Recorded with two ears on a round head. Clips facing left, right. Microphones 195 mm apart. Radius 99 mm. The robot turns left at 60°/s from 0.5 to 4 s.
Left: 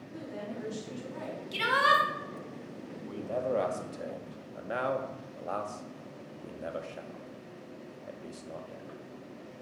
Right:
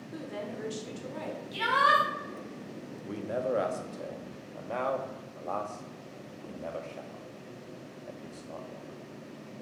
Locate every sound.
0.1 s a woman speaking: 80° right, 1.7 m; by 1.4 s 135° right, 1.7 m
1.5 s a shout: 55° left, 1.3 m; by 2.0 s 25° left, 1.3 m
3.0 s a man speaking: 30° right (ahead or behind), 0.7 m; by 8.9 s 15° left (ahead or behind), 0.7 m